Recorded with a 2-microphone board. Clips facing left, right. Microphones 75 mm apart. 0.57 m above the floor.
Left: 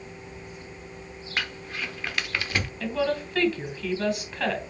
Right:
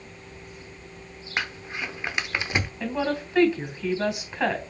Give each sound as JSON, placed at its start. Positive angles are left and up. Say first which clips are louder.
{"t": 1.4, "sound": "crumpling", "louder": "right 2 dB", "side_deg": -20, "distance_m": 0.8}
{"t": 2.8, "sound": "a woman speaking", "louder": "left 3 dB", "side_deg": -20, "distance_m": 3.0}